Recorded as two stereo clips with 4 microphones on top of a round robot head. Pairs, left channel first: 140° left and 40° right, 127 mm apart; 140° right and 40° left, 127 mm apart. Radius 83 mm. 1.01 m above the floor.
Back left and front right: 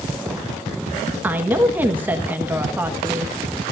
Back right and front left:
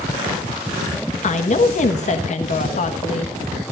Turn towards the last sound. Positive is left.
turn(degrees=-115)